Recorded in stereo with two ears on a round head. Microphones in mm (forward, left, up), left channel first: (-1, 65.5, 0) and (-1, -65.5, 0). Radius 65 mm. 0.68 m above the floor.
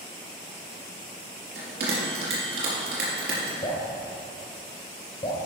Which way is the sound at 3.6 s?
35° left (ahead or behind).